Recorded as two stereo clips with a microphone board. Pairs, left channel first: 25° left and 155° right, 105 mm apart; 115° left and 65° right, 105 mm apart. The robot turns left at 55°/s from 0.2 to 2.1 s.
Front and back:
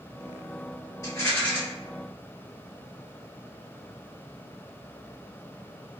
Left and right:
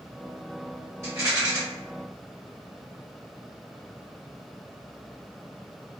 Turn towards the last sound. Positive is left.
turn(degrees=-75)